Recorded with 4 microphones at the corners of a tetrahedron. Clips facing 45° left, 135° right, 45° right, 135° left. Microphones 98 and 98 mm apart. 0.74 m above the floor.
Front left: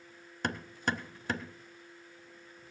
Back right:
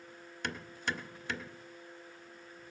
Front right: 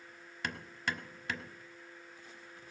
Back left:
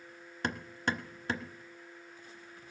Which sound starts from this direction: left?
Hammering, at 0.4 s.